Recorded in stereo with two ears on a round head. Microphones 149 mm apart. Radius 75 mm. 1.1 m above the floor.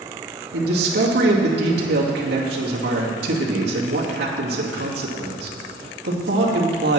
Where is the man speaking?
70° right (ahead or behind), 2 m.